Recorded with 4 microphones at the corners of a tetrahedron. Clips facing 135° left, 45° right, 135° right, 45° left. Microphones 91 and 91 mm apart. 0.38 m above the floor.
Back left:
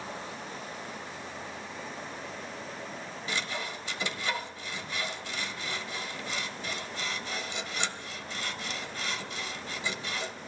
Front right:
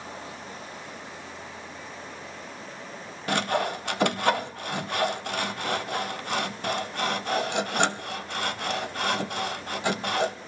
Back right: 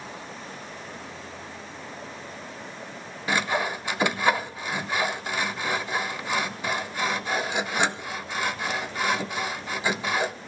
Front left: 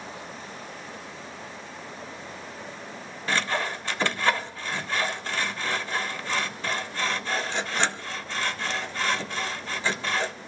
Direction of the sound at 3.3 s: 60° right.